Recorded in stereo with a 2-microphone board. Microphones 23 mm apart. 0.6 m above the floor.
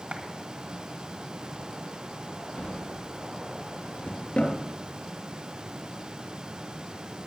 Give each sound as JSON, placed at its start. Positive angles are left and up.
{"t": 0.1, "sound": "a clap", "side_deg": -65, "distance_m": 2.5}
{"t": 2.6, "sound": "a drawer", "side_deg": 70, "distance_m": 4.0}